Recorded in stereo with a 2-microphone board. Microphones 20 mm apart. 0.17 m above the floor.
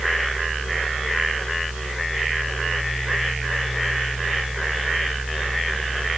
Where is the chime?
I don't hear a chime.